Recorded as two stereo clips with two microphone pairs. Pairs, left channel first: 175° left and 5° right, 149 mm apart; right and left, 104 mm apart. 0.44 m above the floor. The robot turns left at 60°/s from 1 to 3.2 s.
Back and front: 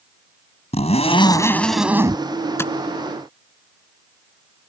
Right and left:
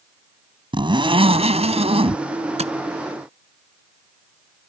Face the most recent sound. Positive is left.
turn(degrees=65)